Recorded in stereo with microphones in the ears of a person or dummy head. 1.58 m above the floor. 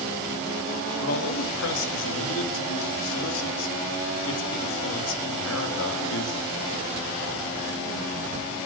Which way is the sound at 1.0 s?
75° left (ahead or behind).